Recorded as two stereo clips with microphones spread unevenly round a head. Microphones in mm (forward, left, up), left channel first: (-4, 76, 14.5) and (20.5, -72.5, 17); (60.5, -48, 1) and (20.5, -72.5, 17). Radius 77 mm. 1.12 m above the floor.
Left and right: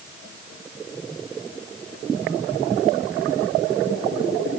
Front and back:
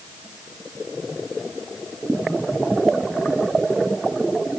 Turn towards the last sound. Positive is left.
No sound to turn to.